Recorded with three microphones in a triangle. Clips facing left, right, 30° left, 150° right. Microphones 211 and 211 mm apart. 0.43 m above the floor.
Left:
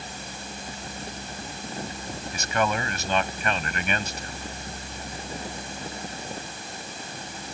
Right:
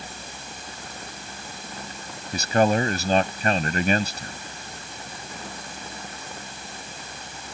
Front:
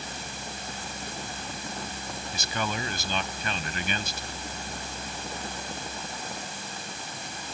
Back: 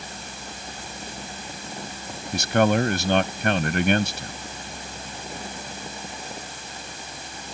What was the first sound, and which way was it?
A man speaking, 140° right.